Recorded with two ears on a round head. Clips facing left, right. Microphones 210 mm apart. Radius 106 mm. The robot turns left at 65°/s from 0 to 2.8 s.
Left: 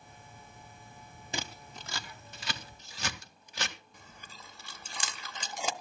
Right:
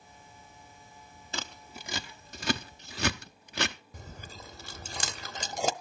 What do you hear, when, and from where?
1.3 s scissors: 15° left (ahead or behind), 0.6 m; by 3.8 s 45° right (ahead or behind), 0.6 m
3.9 s chewing: 35° right (ahead or behind), 0.6 m